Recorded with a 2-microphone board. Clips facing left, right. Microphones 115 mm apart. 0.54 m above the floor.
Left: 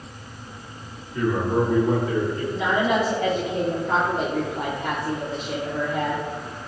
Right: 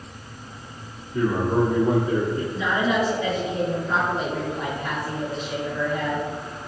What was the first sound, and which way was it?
A man speaking, 25° right (ahead or behind).